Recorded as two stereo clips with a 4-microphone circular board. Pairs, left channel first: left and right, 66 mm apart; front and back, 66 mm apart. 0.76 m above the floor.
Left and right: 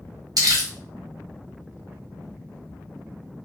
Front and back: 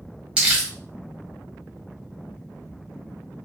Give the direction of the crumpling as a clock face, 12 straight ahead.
4 o'clock.